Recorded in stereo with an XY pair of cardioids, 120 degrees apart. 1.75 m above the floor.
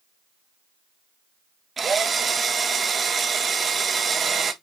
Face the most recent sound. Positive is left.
turn(degrees=-30)